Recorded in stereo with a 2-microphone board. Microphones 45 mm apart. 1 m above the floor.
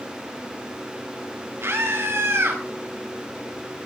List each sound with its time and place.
1.6 s a scream: 75° right (ahead or behind), 8 m